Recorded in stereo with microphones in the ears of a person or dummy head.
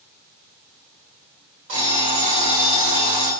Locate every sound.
1.7 s an alarm clock: 65° right (ahead or behind), 1.8 m